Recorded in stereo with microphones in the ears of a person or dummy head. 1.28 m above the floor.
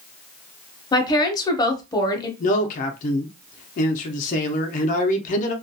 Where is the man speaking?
50° left (ahead or behind), 0.5 m.